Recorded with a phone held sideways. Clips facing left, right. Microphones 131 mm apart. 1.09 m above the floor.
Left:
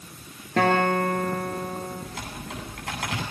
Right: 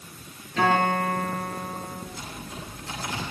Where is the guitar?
55° left (ahead or behind), 6.5 m.